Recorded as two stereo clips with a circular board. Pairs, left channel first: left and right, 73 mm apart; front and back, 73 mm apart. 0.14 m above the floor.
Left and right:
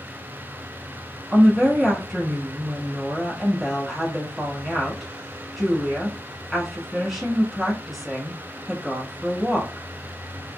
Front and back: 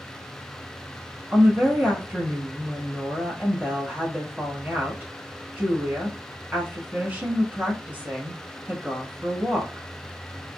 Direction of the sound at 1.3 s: 175° right.